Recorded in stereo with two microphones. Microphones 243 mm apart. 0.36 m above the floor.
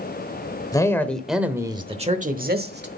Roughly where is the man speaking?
Centre.